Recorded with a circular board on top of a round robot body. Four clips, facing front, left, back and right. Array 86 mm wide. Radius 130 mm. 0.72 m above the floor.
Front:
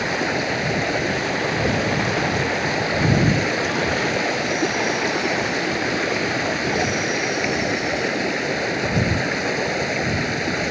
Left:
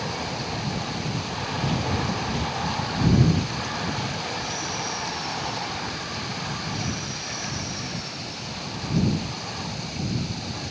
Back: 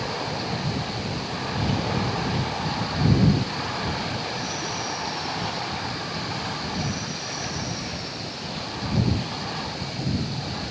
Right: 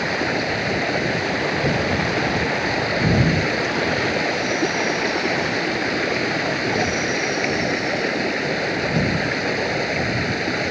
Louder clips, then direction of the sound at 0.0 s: Right 8 dB, front 6 dB; 50° right.